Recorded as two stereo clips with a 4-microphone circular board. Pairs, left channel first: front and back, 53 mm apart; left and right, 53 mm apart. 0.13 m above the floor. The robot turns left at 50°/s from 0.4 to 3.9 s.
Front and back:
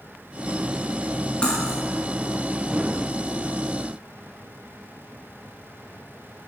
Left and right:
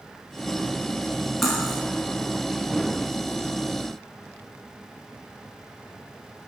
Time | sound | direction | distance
1.4 | cutlery clinking | 15° left | 0.8 m